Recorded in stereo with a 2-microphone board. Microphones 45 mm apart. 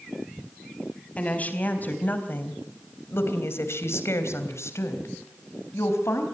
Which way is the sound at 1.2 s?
30° left (ahead or behind).